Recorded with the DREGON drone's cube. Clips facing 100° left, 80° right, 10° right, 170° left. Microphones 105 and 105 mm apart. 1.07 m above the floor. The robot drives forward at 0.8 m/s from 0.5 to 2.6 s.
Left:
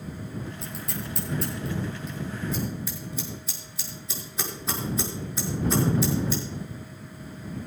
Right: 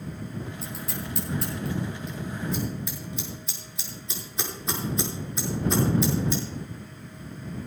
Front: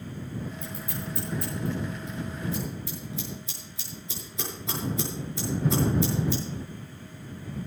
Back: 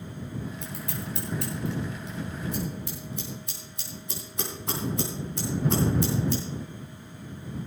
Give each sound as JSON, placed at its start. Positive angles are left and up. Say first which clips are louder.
{"t": 0.6, "sound": "scissors", "louder": "even, even", "azimuth_deg": -165, "distance_m": 4.0}